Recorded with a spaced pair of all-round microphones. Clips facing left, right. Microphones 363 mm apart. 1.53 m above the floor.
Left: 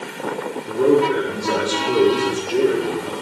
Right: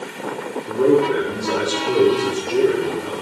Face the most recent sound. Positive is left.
turn(degrees=-5)  # may be behind; listen again after turning